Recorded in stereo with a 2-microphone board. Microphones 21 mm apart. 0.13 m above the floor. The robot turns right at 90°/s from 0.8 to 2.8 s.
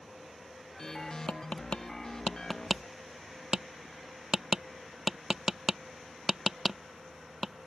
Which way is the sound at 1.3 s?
60° left (ahead or behind).